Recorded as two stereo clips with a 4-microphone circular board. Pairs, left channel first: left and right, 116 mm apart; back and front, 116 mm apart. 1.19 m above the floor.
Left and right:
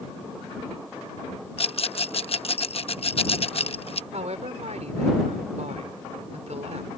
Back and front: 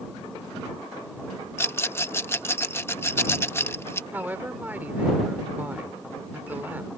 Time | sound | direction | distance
1.6 | a rattle | 115° left | ?
4.1 | a woman speaking | 75° right | ?